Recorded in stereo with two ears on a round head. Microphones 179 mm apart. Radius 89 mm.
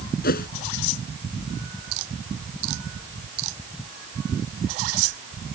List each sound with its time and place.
0.2 s a whoosh: 50° left (ahead or behind)